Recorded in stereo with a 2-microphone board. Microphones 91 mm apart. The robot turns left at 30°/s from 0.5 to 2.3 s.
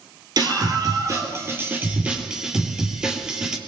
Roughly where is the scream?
Behind right.